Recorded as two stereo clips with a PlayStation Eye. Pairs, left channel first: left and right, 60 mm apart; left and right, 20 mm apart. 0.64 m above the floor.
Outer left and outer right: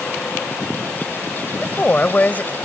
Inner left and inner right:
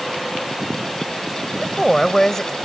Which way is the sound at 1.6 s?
30° left (ahead or behind).